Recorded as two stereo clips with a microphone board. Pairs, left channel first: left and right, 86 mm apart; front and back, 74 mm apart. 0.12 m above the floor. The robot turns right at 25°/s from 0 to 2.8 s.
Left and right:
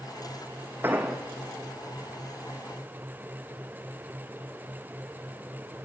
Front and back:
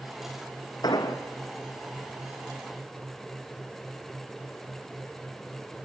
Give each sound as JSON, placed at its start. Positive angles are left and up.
{"t": 0.8, "sound": "an explosion", "azimuth_deg": -25, "distance_m": 3.0}